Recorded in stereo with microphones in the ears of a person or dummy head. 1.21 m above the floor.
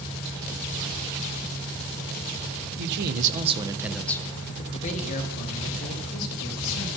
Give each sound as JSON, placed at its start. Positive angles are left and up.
{"t": 2.8, "sound": "a man speaking", "side_deg": -60, "distance_m": 0.8}